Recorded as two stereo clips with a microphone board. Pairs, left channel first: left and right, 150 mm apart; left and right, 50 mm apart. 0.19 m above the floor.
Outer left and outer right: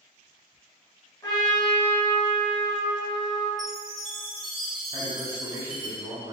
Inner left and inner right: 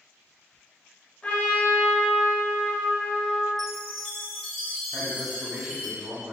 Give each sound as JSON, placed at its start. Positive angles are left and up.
{"t": 1.2, "sound": "a trumpet", "side_deg": 25, "distance_m": 1.2}
{"t": 3.6, "sound": "a chime", "side_deg": 0, "distance_m": 1.0}
{"t": 4.9, "sound": "a man speaking", "side_deg": -20, "distance_m": 1.0}